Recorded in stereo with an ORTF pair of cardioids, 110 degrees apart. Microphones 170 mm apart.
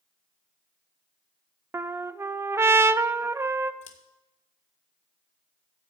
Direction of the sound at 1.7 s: 15° right.